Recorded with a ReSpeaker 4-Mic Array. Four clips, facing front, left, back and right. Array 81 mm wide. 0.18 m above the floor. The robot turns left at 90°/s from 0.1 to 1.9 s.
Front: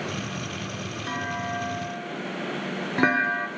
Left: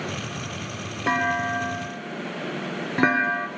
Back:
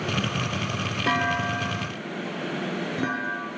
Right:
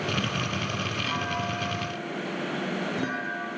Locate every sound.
1.1 s a clunk: 130° left, 0.9 m; by 3.5 s 50° left, 0.9 m